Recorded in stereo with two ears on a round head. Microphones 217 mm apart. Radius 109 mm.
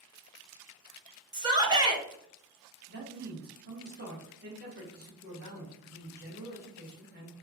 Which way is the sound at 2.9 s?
40° right (ahead or behind).